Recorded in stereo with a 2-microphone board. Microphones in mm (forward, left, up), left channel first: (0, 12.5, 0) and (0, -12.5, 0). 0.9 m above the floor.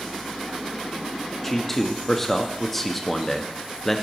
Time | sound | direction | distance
1.4 | a man speaking | 5° left (ahead or behind) | 0.9 m